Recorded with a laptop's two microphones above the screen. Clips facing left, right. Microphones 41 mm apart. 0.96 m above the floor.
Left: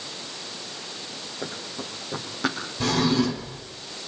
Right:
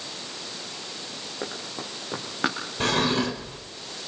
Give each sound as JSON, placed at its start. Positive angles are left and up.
{"t": 1.4, "sound": "running footsteps", "side_deg": -50, "distance_m": 4.0}
{"t": 2.8, "sound": "a drawer", "side_deg": -50, "distance_m": 2.5}